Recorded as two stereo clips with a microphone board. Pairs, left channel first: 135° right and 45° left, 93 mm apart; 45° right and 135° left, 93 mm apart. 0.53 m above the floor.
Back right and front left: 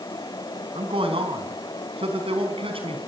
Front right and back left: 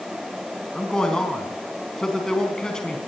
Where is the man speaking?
40° left, 4 m.